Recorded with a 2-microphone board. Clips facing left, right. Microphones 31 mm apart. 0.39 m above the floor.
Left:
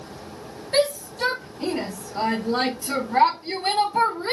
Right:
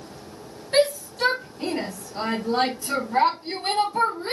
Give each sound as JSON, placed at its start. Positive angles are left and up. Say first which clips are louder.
{"t": 0.7, "sound": "a shout", "louder": "right 1 dB", "side_deg": -10, "distance_m": 2.0}